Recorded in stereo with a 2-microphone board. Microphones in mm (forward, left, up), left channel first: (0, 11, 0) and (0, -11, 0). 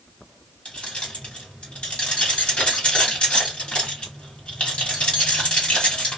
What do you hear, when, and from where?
0.7 s keys jangling: 60° left (ahead or behind), 1.1 m